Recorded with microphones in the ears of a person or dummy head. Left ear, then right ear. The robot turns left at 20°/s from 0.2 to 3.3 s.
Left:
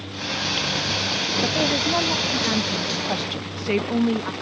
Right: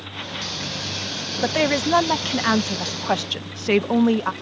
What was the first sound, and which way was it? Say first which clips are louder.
A woman speaking: right 5 dB; 105° right.